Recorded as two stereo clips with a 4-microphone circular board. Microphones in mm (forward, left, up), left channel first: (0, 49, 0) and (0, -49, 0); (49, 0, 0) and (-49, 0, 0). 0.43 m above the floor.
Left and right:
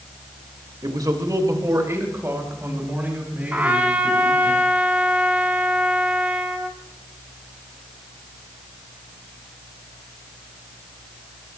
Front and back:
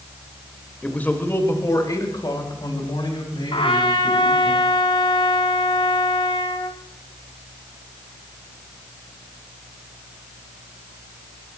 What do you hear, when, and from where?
0.8 s a man speaking: 75° right, 2 m; by 4.5 s 15° right, 5.5 m
3.5 s a trumpet: 15° right, 1.2 m